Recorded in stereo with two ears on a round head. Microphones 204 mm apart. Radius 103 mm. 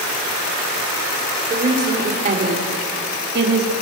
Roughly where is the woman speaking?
Right.